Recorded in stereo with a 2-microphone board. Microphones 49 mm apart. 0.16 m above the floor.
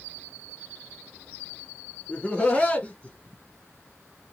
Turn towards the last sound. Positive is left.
turn(degrees=30)  # may be behind; listen again after turning